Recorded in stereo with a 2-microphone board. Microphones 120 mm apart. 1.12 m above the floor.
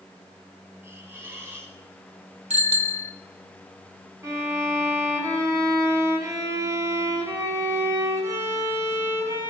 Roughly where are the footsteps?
No footsteps in this recording.